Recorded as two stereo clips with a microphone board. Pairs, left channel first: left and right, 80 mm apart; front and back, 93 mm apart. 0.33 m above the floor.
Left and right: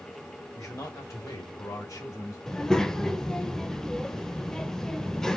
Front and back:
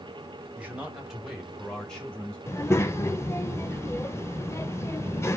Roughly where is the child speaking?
Ahead.